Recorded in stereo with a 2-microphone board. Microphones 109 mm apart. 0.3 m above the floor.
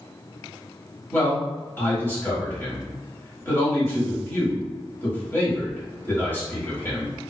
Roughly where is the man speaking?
Centre.